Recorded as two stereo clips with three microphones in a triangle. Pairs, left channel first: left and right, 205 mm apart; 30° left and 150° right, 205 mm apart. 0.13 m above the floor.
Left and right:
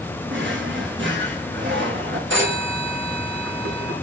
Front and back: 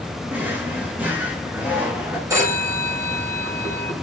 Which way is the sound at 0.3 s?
70° right.